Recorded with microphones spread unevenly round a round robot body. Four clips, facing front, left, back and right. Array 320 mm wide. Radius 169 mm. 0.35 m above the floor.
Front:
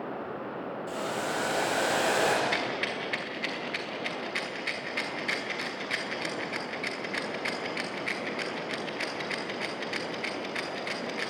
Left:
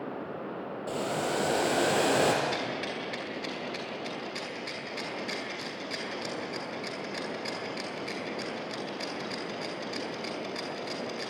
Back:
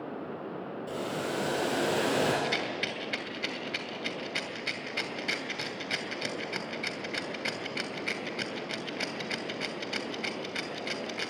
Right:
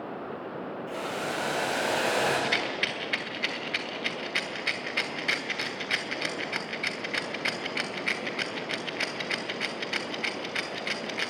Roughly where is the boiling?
Behind left.